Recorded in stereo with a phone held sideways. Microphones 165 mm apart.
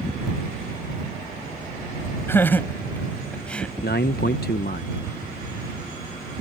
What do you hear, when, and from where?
2.3 s laughter: 15° left (ahead or behind); by 3.7 s 5° left (ahead or behind)
3.8 s a man speaking: 75° left (ahead or behind)